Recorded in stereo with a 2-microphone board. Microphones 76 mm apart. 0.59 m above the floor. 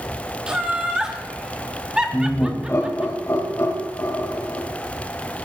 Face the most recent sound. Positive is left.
turn(degrees=40)  # may be behind; listen again after turning